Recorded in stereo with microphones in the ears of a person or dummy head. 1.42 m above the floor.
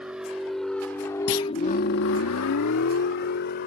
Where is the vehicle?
5° right (ahead or behind); by 3.7 s 55° left (ahead or behind).